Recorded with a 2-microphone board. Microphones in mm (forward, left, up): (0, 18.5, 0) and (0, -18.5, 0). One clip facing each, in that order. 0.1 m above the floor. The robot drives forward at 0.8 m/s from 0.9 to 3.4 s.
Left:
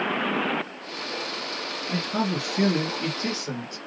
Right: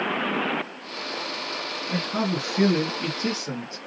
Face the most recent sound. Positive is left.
turn(degrees=-5)  # may be behind; listen again after turning